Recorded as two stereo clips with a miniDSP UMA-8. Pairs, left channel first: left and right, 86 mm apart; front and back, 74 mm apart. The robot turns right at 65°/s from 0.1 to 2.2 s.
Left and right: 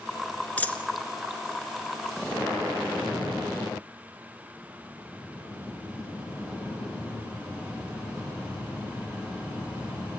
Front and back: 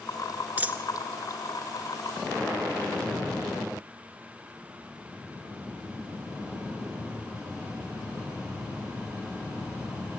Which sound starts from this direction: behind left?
A dropped coin, at 0.6 s.